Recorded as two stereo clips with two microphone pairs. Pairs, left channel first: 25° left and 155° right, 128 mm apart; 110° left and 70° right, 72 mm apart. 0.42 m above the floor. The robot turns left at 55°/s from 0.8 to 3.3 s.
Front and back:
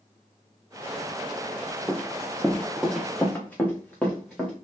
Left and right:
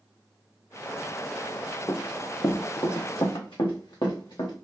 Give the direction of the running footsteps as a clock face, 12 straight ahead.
8 o'clock.